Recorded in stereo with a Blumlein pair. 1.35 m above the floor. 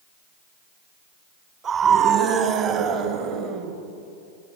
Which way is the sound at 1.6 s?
25° right.